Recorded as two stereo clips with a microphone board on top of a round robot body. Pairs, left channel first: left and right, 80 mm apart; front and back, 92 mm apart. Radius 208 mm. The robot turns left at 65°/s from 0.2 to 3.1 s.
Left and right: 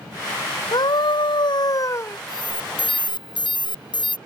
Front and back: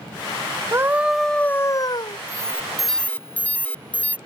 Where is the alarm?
125° left; by 4.2 s 75° left.